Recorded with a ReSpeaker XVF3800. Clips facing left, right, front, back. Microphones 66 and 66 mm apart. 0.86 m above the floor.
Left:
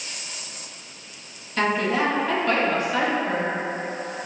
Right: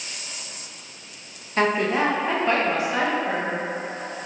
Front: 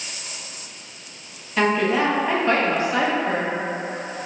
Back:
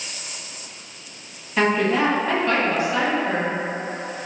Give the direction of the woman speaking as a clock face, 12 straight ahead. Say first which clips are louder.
Right 1 dB, even; 3 o'clock.